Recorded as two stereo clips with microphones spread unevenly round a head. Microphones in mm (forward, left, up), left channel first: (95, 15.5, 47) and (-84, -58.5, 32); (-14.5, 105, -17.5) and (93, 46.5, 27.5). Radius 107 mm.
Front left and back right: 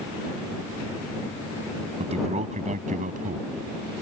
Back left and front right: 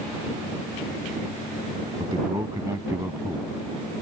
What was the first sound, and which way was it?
A man speaking, 100° right.